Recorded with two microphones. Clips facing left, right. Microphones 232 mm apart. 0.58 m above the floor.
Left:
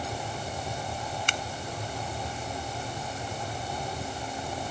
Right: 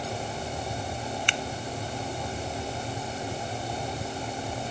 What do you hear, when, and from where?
1.3 s scissors: 45° left (ahead or behind)